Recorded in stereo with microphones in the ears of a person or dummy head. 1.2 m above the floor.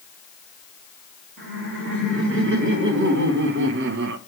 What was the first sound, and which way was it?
Laughter, 70° right (ahead or behind).